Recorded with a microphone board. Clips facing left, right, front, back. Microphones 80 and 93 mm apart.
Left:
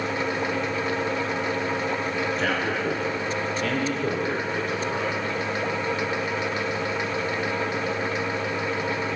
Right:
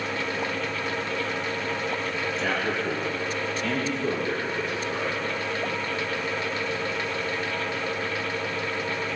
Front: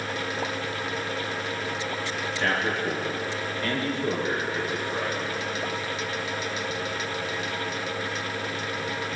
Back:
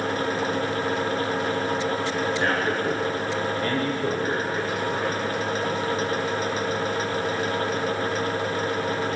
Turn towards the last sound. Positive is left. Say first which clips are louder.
# left 2 dB, front 1 dB
turn(degrees=125)